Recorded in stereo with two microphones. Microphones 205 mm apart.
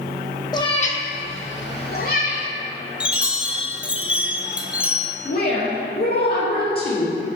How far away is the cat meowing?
About 1.1 m.